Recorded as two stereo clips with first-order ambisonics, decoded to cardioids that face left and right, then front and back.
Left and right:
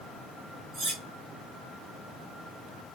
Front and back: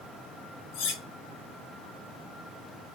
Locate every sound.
0.7 s cutlery clinking: 20° right, 1.1 m